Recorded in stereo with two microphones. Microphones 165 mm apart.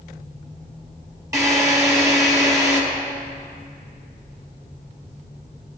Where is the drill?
20° right (ahead or behind), 3 m.